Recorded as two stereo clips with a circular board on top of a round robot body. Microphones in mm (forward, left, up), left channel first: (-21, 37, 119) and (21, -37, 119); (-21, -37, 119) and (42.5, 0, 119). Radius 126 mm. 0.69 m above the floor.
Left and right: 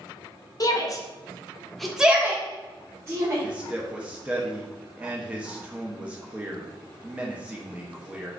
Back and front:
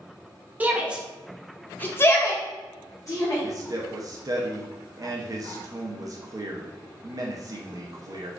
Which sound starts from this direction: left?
A shout, at 0.6 s.